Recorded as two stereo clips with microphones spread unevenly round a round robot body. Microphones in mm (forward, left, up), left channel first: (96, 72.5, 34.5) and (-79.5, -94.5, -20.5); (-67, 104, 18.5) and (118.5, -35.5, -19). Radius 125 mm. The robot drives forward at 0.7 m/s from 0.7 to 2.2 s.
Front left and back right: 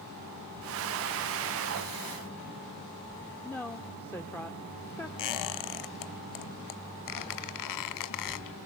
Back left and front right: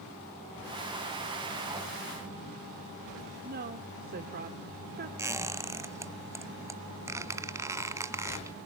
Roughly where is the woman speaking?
Ahead right.